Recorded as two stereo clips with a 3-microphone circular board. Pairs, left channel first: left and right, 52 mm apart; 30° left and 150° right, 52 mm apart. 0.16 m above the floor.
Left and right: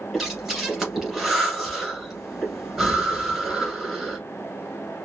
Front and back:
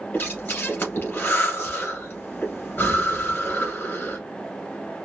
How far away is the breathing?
About 1.4 m.